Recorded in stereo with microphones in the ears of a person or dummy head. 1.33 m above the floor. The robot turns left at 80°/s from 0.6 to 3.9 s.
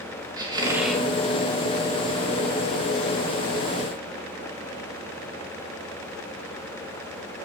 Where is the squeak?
160° right, 0.8 m; by 1.1 s 165° left, 0.8 m.